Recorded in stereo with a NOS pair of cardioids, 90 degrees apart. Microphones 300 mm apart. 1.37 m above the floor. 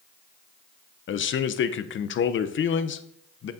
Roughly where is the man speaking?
Ahead left.